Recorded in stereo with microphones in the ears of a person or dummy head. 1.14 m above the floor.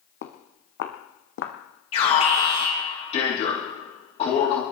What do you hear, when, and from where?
0.2 s footsteps: 55° left (ahead or behind), 2.5 m; by 1.6 s 65° left (ahead or behind), 2.5 m
1.9 s an alarm: 30° left (ahead or behind), 4 m